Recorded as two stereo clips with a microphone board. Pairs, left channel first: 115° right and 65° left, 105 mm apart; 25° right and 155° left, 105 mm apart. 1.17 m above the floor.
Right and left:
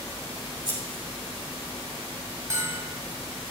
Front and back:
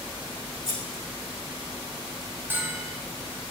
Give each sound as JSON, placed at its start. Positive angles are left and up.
{"t": 0.7, "sound": "scissors", "azimuth_deg": 20, "distance_m": 3.5}
{"t": 2.5, "sound": "a bell", "azimuth_deg": 105, "distance_m": 1.2}